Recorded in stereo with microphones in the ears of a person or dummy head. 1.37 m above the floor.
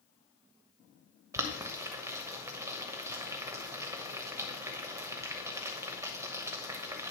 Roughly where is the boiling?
Centre.